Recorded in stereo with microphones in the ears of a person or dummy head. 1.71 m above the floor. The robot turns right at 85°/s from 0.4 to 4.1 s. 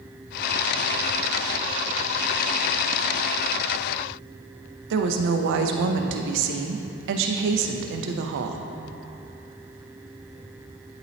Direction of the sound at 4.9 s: 65° right (ahead or behind).